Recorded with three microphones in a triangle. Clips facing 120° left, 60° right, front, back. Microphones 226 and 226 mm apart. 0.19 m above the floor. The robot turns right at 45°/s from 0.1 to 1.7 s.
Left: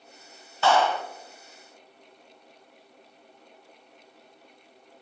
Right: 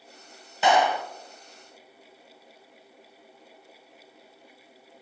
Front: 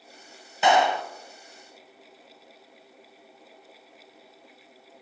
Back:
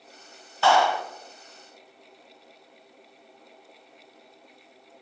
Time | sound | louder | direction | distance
0.6 | a clap | right 1 dB, even | 30° right | 0.8 m